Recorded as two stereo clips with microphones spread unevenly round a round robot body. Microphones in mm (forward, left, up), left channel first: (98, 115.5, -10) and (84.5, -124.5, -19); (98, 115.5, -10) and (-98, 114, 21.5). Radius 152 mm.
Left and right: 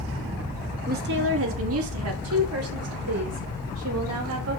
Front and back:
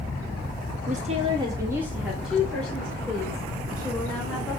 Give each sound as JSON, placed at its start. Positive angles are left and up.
{"t": 0.9, "sound": "a woman speaking", "azimuth_deg": -130, "distance_m": 1.1}